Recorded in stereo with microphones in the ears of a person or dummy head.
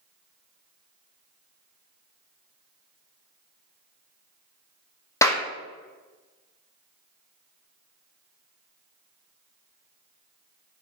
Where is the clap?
10° left (ahead or behind), 0.9 m.